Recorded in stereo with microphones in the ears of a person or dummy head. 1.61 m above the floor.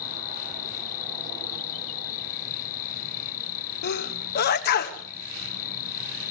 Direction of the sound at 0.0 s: 45° left (ahead or behind).